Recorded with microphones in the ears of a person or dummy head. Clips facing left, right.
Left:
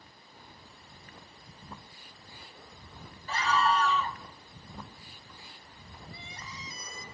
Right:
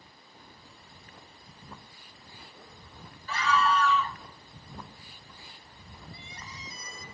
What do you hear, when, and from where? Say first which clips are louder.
3.3 s a scream: right 1 dB; 35° left (ahead or behind), 1.0 m
6.1 s crying: even; 70° left (ahead or behind), 1.2 m